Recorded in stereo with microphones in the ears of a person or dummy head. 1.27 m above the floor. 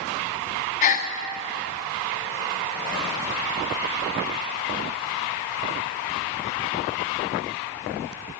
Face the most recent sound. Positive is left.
turn(degrees=40)  # may be behind; listen again after turning